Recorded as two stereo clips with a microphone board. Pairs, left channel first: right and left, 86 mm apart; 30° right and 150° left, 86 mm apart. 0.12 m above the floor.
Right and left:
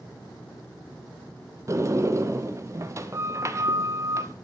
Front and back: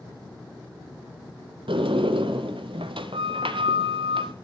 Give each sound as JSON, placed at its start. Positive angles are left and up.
{"t": 1.7, "sound": "a sliding door", "azimuth_deg": 145, "distance_m": 0.7}